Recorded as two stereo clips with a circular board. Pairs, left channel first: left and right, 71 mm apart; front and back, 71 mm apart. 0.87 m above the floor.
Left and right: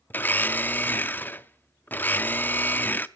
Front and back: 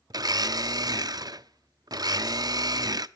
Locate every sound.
0.1 s a blender: 155° left, 0.5 m